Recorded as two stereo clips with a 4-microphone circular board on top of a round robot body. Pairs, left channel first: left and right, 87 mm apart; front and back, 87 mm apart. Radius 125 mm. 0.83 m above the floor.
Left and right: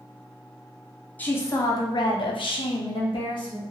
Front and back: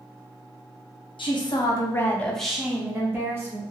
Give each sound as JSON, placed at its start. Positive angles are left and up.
{"t": 1.2, "sound": "a woman speaking", "azimuth_deg": 20, "distance_m": 0.9}